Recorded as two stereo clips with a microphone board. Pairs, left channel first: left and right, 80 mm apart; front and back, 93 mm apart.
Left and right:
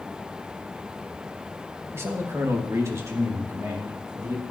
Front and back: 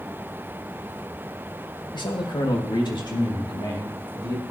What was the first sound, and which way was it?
A man speaking, 35° right.